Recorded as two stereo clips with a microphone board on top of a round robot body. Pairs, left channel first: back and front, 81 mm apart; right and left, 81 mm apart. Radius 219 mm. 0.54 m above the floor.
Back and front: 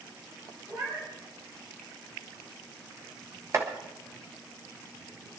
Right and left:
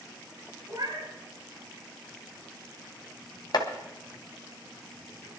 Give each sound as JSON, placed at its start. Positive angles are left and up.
{"t": 0.7, "sound": "a cat meowing", "azimuth_deg": 45, "distance_m": 5.5}
{"t": 3.5, "sound": "chopping", "azimuth_deg": -55, "distance_m": 1.7}